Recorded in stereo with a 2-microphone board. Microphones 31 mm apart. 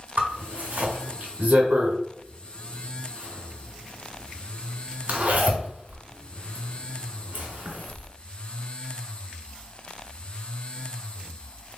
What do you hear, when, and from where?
0.2 s a zipper: 55° right (ahead or behind), 1.6 m